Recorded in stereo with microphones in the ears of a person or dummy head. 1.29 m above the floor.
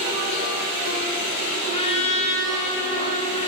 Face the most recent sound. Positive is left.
turn(degrees=35)  # may be behind; listen again after turning